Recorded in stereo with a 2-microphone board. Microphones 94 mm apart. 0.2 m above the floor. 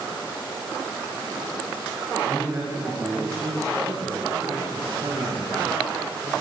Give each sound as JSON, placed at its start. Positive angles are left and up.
{"t": 2.3, "sound": "a man speaking", "side_deg": -25, "distance_m": 8.5}